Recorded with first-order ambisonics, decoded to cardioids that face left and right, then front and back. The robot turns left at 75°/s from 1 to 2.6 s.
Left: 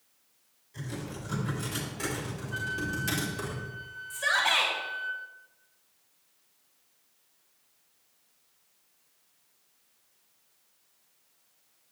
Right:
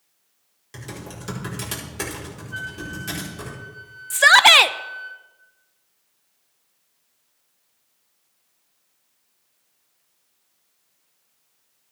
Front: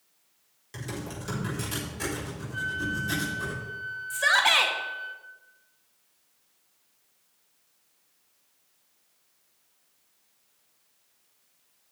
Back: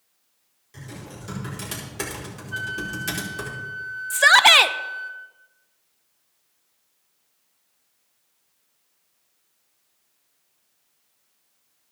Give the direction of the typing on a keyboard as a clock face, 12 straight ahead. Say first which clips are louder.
Right 3 dB, front 3 dB; 2 o'clock.